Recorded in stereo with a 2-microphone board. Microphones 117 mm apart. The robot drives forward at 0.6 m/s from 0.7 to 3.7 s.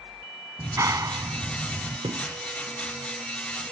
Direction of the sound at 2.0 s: 55° right (ahead or behind).